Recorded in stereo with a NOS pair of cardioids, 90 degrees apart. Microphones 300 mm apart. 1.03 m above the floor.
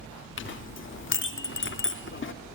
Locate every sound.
0.4 s a clink: 40° left, 1.7 m